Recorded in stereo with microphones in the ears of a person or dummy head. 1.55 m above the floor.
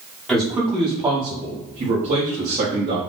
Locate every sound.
0.3 s a man speaking: centre (ahead or behind), 1.4 m; by 3.0 s 45° right (ahead or behind), 2 m